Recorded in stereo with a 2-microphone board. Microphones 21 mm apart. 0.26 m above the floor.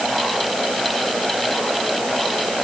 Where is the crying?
I don't hear crying.